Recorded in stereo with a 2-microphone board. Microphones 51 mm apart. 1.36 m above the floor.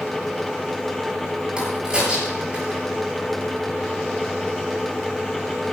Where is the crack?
20° right (ahead or behind), 9 m.